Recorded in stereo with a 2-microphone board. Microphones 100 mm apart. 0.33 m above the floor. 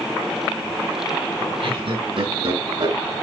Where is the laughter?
70° right (ahead or behind), 4.5 m; by 3.0 s 65° right (ahead or behind), 4.5 m.